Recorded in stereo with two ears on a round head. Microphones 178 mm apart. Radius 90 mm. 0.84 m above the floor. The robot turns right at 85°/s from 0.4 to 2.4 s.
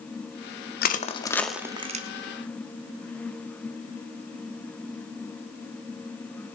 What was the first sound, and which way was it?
Crushing, 55° left (ahead or behind).